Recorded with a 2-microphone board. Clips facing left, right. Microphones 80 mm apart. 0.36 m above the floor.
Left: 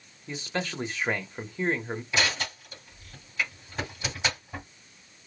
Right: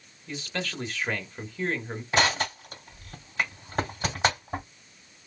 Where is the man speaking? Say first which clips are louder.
Left 2 dB; 20° left (ahead or behind), 0.9 m.